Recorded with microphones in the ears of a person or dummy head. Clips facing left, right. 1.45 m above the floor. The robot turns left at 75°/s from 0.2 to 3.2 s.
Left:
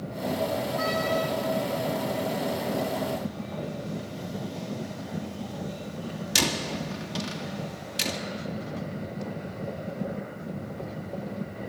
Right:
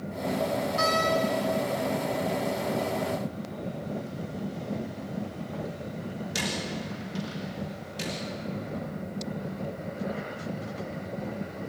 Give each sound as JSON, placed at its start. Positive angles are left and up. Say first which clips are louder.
{"t": 0.8, "sound": "a door slam", "louder": "right 2 dB", "side_deg": -75, "distance_m": 2.0}